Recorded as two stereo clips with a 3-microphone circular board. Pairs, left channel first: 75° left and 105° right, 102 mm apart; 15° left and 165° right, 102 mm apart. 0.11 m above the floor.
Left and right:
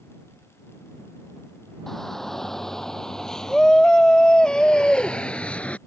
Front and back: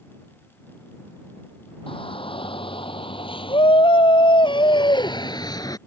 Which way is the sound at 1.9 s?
10° right.